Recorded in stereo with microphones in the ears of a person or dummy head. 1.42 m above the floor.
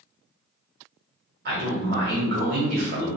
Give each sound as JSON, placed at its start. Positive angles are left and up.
{"t": 1.4, "sound": "a man speaking", "side_deg": -55, "distance_m": 1.0}